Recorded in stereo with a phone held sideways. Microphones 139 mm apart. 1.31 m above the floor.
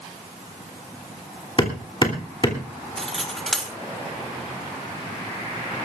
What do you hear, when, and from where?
1.6 s hammering: 35° left (ahead or behind), 3 m
3.0 s cutlery clinking: 5° left (ahead or behind), 2.5 m